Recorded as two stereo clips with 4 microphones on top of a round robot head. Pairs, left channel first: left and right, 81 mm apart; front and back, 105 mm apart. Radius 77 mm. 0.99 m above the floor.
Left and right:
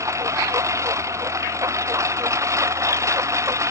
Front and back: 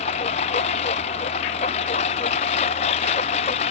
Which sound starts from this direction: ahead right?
A lawn mower, at 0.0 s.